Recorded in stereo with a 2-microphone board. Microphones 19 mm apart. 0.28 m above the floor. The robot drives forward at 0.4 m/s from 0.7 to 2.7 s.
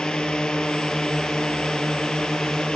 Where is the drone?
65° left (ahead or behind).